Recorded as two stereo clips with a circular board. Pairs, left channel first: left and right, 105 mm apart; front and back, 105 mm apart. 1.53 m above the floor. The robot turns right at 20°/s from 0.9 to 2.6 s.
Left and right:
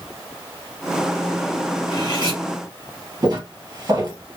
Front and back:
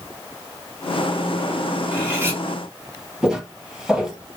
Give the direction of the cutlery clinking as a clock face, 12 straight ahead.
8 o'clock.